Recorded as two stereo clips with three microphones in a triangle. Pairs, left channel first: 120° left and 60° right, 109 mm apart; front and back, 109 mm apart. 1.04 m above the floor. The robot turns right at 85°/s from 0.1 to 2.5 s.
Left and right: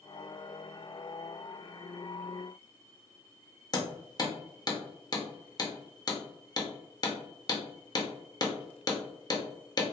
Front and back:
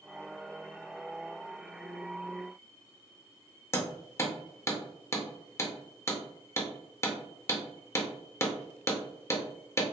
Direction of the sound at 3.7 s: 65° left.